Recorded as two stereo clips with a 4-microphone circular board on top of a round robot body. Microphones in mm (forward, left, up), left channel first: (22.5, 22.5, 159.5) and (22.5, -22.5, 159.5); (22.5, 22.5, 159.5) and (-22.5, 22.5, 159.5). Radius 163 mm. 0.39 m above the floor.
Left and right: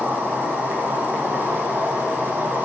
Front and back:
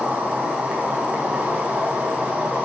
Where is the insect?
130° right, 0.7 m.